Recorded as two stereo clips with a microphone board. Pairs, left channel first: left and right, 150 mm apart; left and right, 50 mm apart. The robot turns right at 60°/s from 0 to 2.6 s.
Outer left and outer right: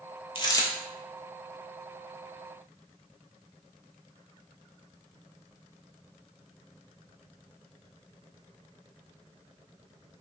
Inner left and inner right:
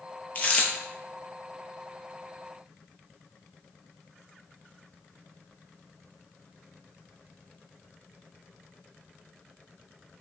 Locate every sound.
0.3 s a dropped coin: 35° left (ahead or behind), 0.5 m; by 0.7 s 15° left (ahead or behind), 0.5 m